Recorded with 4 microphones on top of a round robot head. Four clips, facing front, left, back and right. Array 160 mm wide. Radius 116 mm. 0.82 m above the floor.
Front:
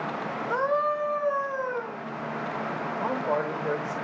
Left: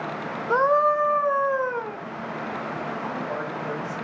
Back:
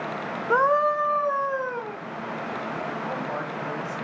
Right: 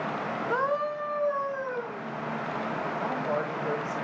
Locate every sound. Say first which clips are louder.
0.5 s a scream: left 10 dB, back 5 dB; 150° left, 0.8 m; by 2.0 s 105° left, 2.0 m
3.0 s a man speaking: even, front 3 dB; 5° right, 3 m